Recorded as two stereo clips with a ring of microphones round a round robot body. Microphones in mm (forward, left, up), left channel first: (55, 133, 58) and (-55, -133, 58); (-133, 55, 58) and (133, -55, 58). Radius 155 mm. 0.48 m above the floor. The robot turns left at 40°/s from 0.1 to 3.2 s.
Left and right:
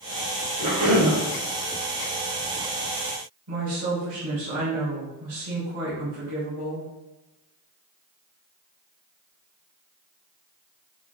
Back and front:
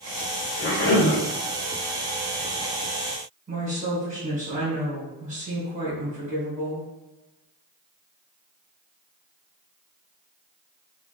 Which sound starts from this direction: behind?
A cough, at 0.6 s.